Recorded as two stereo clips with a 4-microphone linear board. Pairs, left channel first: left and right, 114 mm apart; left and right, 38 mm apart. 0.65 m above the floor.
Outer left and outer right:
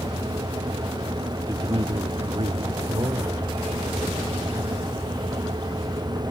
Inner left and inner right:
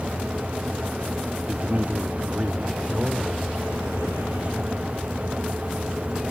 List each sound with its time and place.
1.5 s a man speaking: 30° right (ahead or behind), 1.0 m; by 5.3 s 35° right (ahead or behind), 4 m